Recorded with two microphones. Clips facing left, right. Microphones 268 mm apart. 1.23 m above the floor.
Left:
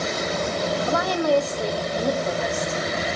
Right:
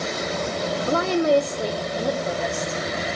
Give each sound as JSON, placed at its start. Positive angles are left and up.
{"t": 0.9, "sound": "a woman speaking", "side_deg": -35, "distance_m": 0.8}